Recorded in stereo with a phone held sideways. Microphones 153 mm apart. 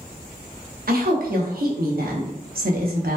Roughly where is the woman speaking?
Right.